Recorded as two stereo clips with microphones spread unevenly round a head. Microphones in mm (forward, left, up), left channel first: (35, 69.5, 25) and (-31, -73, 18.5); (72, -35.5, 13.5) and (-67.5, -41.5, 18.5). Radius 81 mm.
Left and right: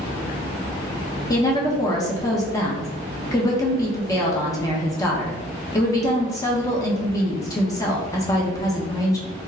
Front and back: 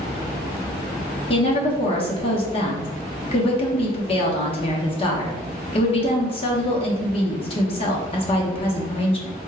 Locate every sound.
1.3 s a woman speaking: 5° left, 1.0 m